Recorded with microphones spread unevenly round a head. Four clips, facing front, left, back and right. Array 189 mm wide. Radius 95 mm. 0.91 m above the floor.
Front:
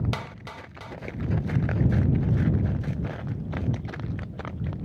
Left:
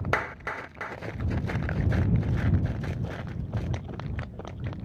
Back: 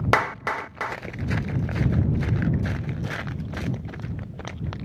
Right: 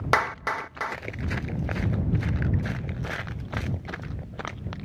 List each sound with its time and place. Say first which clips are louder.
0.1 s a clap: right 7 dB, back 13 dB; 160° right